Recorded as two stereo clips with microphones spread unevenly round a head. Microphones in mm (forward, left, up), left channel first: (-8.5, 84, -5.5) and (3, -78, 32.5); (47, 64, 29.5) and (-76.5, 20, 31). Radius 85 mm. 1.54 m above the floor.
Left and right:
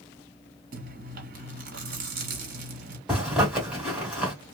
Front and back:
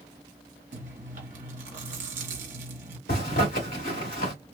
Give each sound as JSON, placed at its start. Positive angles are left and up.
{"t": 0.7, "sound": "chewing", "azimuth_deg": -115, "distance_m": 1.4}
{"t": 3.1, "sound": "a zipper", "azimuth_deg": -10, "distance_m": 2.0}